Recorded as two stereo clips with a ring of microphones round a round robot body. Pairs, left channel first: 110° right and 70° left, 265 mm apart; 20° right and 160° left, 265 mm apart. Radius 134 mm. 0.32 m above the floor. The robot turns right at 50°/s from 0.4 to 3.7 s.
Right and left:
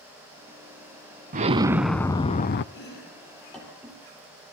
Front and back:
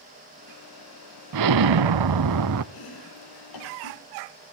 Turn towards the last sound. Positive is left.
turn(degrees=-15)